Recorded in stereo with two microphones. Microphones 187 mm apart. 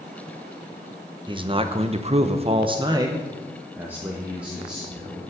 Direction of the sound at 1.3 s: 25° right (ahead or behind).